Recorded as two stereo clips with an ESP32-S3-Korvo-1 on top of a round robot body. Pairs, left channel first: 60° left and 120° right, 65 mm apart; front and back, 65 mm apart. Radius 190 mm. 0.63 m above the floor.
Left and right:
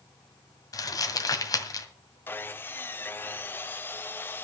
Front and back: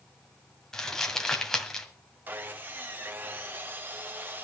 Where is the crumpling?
80° left, 1.9 m.